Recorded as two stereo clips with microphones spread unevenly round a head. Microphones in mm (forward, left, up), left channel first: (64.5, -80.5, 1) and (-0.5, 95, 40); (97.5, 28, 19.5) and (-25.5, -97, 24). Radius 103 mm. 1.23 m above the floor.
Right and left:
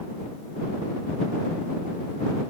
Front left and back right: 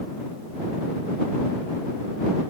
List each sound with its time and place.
Only background noise.